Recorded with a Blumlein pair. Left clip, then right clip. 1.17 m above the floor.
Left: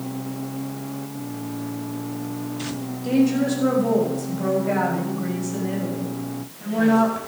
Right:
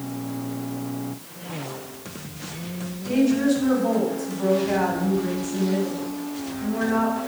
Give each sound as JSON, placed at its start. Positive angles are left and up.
{"t": 3.0, "sound": "a woman speaking", "azimuth_deg": 25, "distance_m": 6.5}